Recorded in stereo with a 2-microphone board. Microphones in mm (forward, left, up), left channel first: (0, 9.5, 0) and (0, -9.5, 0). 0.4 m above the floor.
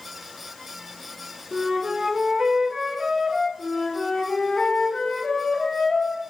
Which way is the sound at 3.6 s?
50° left (ahead or behind).